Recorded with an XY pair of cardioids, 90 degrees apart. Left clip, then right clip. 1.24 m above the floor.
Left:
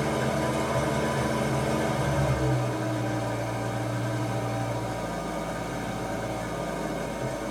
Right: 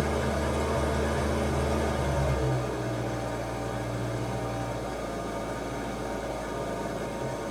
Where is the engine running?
40° left, 1.2 m.